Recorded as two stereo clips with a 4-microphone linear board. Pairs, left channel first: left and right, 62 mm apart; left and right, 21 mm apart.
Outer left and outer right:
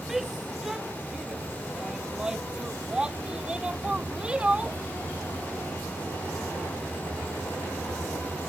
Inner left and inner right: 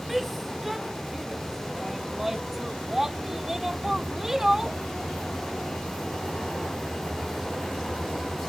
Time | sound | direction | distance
0.1 | a shout | 5° right (ahead or behind) | ?